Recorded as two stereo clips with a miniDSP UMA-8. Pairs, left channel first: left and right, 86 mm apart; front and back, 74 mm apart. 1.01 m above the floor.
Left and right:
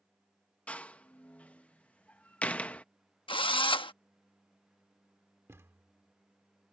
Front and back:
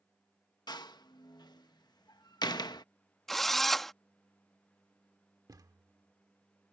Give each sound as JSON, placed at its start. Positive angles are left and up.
{"t": 0.7, "sound": "a door slam", "azimuth_deg": 15}
{"t": 3.3, "sound": "a drill", "azimuth_deg": 85}
{"t": 5.5, "sound": "a thud", "azimuth_deg": -150}